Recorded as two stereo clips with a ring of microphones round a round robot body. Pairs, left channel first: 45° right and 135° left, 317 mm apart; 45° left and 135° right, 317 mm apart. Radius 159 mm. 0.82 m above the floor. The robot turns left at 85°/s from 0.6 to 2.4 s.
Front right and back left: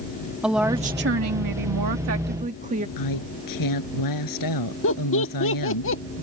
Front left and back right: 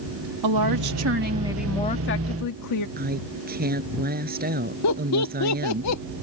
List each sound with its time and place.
0.4 s a woman speaking: 135° right; by 2.9 s 70° left
3.0 s a woman speaking: 70° right
4.8 s laughter: 5° left